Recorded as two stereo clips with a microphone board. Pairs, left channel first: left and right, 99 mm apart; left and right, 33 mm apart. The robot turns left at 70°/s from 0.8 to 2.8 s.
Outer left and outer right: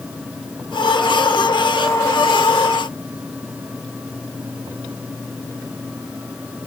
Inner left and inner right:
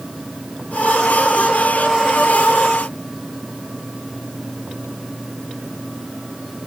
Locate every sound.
Only background noise.